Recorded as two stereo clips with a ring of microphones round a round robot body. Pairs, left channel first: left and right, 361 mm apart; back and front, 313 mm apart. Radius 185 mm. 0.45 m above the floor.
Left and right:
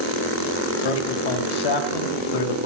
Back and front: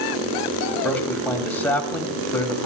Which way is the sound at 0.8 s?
95° left.